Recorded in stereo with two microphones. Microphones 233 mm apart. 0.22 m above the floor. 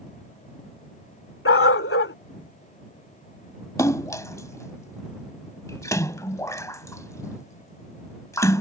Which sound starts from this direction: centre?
A splash, at 3.8 s.